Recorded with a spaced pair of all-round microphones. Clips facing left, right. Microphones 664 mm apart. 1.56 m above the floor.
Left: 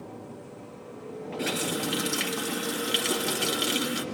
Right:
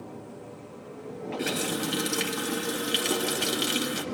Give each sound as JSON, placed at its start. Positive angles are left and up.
{"t": 1.4, "sound": "a running tap", "side_deg": 15, "distance_m": 1.7}